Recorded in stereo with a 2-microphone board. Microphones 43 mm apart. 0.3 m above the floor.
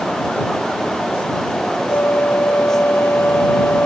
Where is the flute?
65° left (ahead or behind).